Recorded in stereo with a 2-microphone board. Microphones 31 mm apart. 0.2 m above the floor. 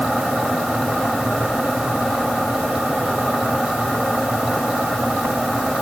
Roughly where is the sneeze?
No sneeze in this recording.